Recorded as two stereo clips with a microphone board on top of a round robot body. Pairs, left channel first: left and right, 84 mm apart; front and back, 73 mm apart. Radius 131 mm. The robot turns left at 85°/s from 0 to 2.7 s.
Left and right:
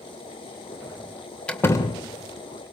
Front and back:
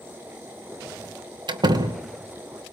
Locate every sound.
1.5 s a door slam: 170° left, 2.5 m; by 2.0 s 120° left, 2.5 m